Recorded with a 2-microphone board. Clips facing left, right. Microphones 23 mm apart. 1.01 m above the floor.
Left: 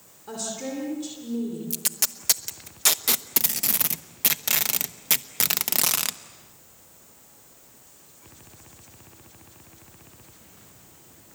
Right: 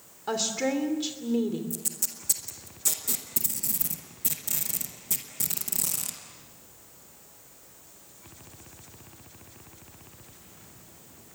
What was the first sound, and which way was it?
A woman speaking, 45° right (ahead or behind).